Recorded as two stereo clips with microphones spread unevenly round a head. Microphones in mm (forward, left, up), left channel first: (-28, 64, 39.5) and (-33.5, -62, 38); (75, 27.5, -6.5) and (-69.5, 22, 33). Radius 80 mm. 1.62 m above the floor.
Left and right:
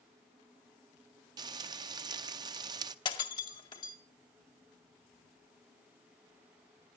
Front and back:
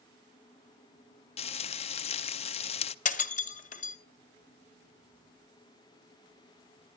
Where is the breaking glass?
35° left, 1.8 m.